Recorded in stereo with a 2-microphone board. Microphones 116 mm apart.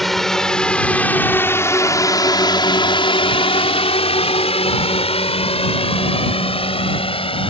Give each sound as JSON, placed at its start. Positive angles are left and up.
{"t": 0.0, "sound": "a drone", "side_deg": 0}